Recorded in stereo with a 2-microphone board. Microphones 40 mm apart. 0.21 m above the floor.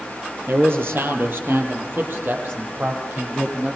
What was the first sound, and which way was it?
A man speaking, 70° right (ahead or behind).